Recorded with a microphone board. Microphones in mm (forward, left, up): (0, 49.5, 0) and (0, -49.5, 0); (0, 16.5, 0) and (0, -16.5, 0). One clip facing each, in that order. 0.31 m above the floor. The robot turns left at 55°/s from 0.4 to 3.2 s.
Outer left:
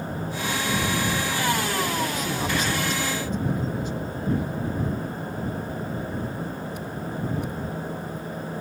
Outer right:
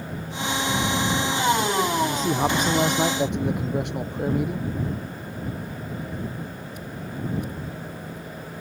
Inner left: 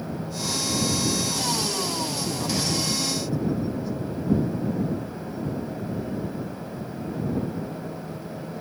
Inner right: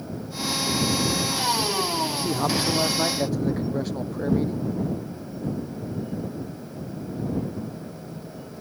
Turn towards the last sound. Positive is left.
turn(degrees=-85)